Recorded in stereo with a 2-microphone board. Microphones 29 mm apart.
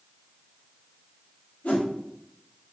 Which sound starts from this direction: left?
A whoosh, at 1.6 s.